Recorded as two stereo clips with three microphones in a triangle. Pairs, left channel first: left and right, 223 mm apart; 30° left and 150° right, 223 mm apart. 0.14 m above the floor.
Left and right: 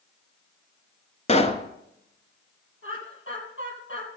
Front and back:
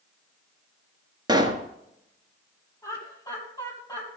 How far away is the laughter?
About 3.5 m.